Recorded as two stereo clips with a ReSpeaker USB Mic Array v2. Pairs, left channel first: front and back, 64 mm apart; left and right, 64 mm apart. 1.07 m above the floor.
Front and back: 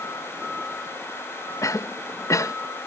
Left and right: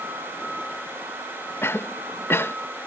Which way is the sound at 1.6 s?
40° left.